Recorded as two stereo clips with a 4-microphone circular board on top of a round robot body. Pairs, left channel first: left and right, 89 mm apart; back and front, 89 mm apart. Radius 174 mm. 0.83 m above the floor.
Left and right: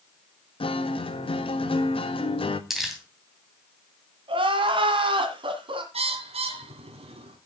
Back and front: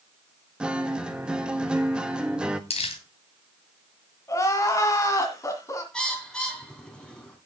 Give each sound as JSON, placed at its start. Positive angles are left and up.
{"t": 0.6, "sound": "a guitar", "azimuth_deg": 80, "distance_m": 1.7}
{"t": 2.7, "sound": "crumpling", "azimuth_deg": -175, "distance_m": 2.5}
{"t": 4.3, "sound": "crying", "azimuth_deg": -120, "distance_m": 1.7}
{"t": 5.9, "sound": "a bird", "azimuth_deg": -100, "distance_m": 3.0}